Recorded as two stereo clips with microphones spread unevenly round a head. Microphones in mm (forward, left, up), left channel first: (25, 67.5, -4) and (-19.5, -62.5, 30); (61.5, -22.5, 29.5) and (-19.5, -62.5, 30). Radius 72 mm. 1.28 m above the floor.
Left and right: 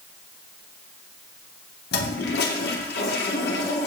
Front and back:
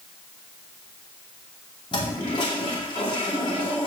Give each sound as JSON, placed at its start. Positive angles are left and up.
{"t": 1.9, "sound": "a toilet flushing", "azimuth_deg": 80, "distance_m": 2.5}